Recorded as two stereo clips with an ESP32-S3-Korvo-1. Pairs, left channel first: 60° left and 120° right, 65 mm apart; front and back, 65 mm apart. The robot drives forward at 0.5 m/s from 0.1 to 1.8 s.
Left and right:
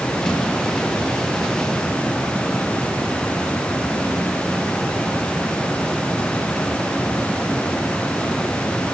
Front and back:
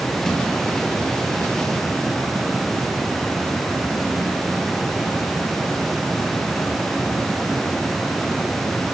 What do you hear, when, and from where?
Only background noise.